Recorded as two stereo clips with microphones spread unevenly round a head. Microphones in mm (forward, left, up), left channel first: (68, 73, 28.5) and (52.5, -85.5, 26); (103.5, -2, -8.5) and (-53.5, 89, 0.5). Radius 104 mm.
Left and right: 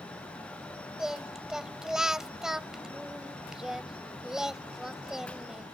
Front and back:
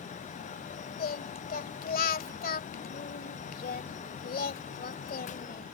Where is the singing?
10° right.